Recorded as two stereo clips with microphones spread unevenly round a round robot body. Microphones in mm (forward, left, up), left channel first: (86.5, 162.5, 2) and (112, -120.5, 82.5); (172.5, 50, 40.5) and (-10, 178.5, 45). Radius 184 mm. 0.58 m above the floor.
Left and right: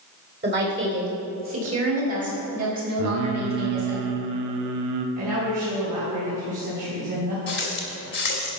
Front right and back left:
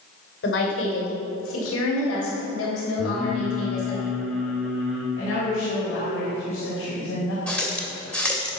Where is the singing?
125° right, 0.5 m.